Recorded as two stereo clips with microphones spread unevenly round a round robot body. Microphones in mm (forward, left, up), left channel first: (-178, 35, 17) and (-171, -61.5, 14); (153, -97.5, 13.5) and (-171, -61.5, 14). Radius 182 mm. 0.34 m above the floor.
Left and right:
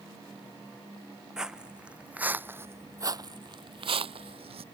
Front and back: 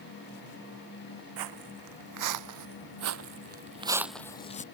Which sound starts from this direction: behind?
Footsteps, at 1.4 s.